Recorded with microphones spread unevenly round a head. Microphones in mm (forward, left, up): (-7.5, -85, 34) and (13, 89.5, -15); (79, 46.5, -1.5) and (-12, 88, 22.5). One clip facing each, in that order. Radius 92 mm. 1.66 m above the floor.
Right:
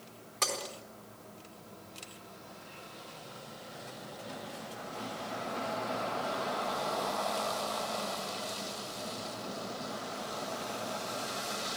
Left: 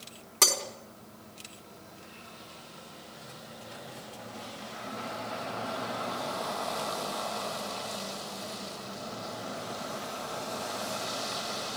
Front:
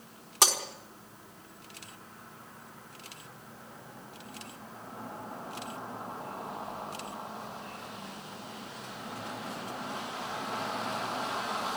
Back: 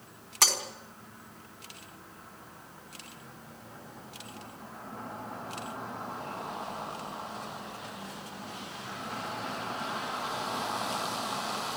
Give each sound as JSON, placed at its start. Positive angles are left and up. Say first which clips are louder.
{"t": 0.4, "sound": "breaking glass", "louder": "left 4 dB, front 3 dB", "azimuth_deg": 50, "distance_m": 4.0}